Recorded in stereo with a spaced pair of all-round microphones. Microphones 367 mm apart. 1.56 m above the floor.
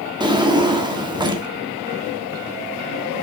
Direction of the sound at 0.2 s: 10° right (ahead or behind).